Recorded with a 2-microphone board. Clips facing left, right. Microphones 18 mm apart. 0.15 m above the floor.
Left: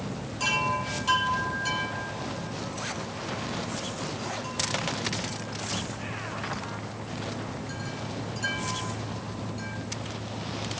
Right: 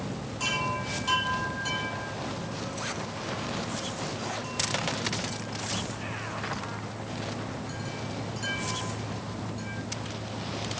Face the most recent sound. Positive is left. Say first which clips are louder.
# left 3 dB
turn(degrees=10)  # may be behind; listen again after turning